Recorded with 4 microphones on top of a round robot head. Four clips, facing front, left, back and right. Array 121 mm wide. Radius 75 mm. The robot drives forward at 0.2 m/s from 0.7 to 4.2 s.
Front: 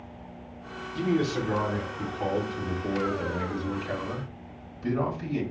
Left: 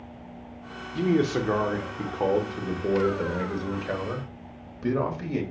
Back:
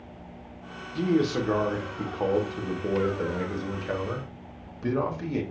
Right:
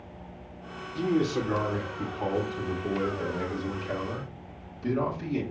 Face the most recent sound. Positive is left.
turn(degrees=135)